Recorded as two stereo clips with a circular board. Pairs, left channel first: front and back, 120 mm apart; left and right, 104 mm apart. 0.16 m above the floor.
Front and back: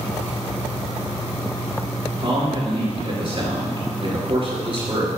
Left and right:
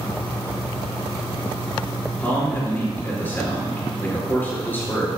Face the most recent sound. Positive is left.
turn(degrees=155)